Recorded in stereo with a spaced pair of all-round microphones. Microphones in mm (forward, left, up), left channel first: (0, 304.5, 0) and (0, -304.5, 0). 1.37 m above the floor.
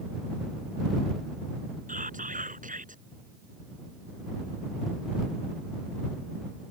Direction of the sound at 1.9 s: 10° right (ahead or behind).